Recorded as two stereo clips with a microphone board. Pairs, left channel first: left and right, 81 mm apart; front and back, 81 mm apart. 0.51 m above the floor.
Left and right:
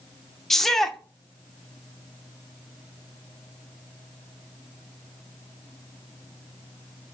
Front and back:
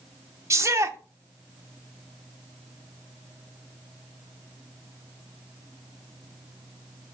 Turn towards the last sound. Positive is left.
turn(degrees=175)